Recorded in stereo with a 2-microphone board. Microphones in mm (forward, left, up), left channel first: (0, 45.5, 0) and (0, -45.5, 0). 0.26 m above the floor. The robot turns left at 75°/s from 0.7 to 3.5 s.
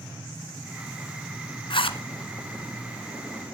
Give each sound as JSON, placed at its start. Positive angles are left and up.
{"t": 1.7, "sound": "a zipper", "side_deg": 65, "distance_m": 1.4}